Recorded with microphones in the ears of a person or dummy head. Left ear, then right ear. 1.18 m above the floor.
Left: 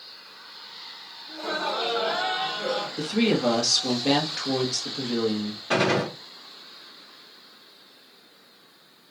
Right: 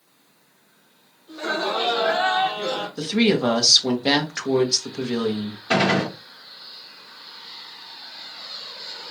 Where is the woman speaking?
30° right (ahead or behind), 0.9 m.